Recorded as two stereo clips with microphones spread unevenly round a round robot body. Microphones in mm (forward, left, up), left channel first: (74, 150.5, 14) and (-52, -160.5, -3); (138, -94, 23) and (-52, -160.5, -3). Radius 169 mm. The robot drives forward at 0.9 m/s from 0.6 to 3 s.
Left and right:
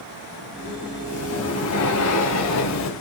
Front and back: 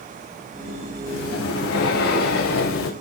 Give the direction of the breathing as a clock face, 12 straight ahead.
11 o'clock.